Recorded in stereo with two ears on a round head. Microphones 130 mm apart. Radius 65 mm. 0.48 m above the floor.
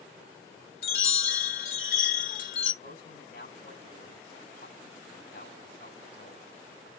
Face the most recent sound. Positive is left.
turn(degrees=65)  # may be behind; listen again after turning